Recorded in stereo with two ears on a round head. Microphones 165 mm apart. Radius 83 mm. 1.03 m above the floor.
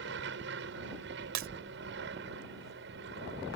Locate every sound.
0.0 s an aircraft: 65° right (ahead or behind); by 3.6 s 60° right (ahead or behind)
1.4 s breaking glass: 75° right (ahead or behind)